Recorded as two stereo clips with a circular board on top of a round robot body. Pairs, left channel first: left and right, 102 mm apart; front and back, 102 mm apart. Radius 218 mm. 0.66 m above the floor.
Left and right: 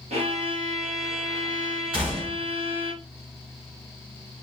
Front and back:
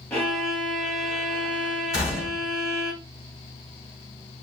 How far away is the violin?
About 0.8 m.